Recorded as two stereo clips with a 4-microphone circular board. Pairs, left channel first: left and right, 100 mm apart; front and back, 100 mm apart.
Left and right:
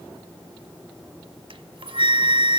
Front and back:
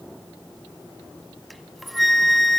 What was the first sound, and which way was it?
A flute, 90° right.